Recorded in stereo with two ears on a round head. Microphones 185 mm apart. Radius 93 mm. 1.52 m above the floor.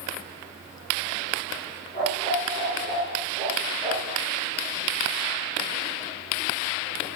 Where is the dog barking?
25° left (ahead or behind), 9 m; by 4.2 s 10° left (ahead or behind), 8 m.